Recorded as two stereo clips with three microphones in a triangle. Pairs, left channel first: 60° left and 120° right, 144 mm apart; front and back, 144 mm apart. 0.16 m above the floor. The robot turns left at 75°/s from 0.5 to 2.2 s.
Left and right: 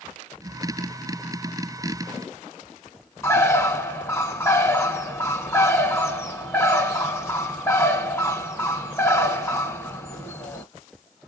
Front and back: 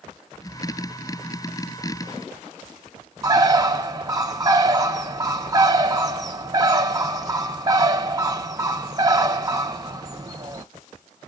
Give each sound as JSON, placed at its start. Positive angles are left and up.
{"t": 3.2, "sound": "a bird", "azimuth_deg": 125, "distance_m": 0.7}